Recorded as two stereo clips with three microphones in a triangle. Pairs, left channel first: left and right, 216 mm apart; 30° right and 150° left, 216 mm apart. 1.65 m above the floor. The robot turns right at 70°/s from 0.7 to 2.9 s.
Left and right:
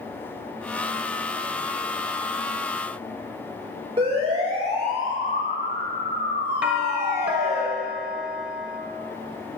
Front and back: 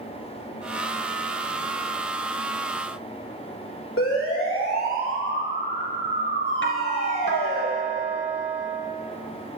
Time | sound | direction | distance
4.0 | a siren | 25° right | 3.5 m
6.6 | a doorbell | 5° right | 1.8 m